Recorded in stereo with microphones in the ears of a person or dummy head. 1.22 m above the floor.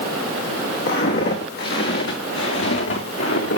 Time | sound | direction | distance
0.9 | footsteps | 55° left (ahead or behind) | 4.5 m